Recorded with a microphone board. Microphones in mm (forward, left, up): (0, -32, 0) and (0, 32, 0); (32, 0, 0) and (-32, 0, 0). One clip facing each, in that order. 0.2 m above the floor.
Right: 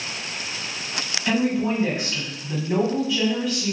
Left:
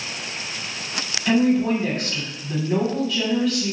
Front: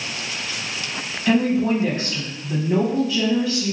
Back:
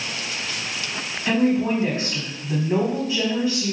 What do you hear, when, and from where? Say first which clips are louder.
1.3 s a woman speaking: left 4 dB, front 1 dB; 160° right, 1.0 m